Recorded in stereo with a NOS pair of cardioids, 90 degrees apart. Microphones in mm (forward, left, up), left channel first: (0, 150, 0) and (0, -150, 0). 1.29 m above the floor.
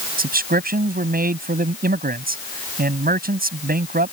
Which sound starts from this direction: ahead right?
A man speaking, at 0.2 s.